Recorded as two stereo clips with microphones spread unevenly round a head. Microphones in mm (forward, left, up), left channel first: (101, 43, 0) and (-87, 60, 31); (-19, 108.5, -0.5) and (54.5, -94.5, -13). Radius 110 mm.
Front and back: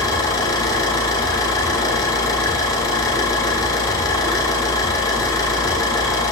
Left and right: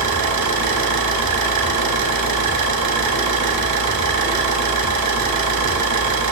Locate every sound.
0.0 s an engine running: 80° right, 4 m